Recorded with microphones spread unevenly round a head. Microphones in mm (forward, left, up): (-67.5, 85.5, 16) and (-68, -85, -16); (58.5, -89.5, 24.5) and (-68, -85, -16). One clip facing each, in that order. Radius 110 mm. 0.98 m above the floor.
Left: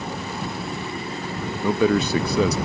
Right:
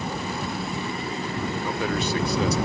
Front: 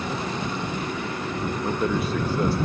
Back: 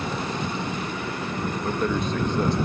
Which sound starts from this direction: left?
A man speaking, at 1.6 s.